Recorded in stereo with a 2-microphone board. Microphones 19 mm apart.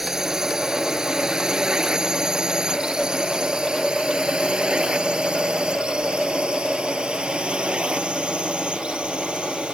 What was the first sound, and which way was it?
A drone, 30° right (ahead or behind).